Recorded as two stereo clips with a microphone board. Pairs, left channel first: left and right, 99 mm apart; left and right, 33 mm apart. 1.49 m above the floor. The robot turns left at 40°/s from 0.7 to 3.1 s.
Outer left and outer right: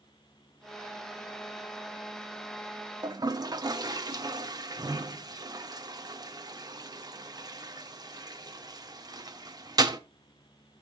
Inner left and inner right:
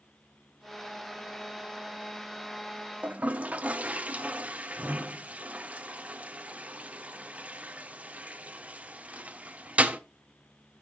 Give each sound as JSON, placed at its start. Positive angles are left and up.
{"t": 3.0, "sound": "a toilet flushing", "side_deg": -45, "distance_m": 0.7}